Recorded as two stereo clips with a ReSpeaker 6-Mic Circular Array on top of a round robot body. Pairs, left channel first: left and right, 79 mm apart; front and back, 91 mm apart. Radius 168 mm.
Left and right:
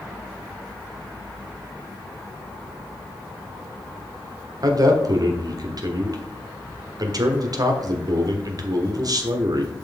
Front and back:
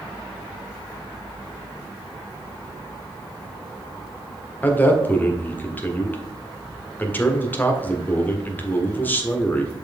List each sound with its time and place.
4.6 s a man speaking: 65° right, 1.7 m